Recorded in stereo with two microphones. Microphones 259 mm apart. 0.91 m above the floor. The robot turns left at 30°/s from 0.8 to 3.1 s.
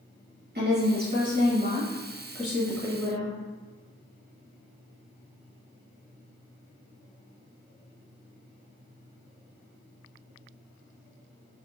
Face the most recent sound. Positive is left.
turn(degrees=170)